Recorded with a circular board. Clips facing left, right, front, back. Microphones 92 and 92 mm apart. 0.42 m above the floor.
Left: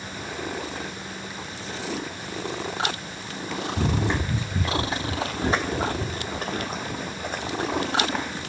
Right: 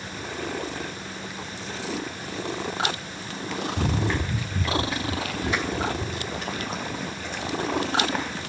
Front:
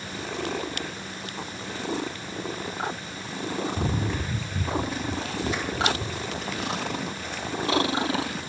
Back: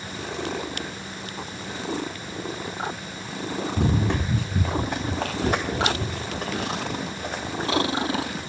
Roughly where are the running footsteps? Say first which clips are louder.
Left 2 dB, back 4 dB; behind.